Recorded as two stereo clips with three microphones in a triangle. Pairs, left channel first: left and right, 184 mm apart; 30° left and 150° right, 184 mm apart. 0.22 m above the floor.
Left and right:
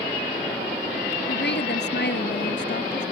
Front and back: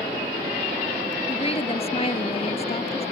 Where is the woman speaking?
85° left.